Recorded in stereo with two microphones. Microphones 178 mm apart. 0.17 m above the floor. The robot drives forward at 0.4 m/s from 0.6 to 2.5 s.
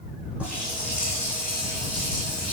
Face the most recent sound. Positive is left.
turn(degrees=-5)  # may be behind; listen again after turning